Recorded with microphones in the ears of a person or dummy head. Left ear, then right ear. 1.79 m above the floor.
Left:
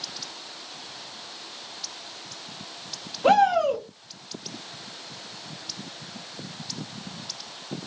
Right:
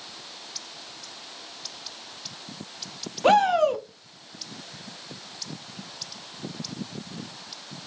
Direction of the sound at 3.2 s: 15° right (ahead or behind).